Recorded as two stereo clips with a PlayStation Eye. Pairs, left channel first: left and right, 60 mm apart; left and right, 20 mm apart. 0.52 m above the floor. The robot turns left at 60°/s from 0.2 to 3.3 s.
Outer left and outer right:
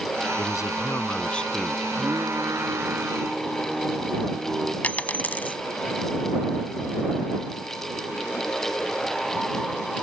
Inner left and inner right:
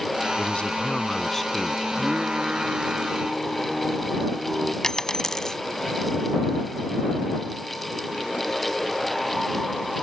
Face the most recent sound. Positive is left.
turn(degrees=30)  # may be behind; listen again after turning